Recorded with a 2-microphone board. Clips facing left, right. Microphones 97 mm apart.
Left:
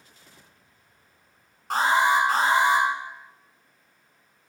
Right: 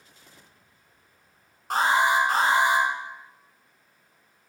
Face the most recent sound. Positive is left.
turn(degrees=0)  # may be behind; listen again after turning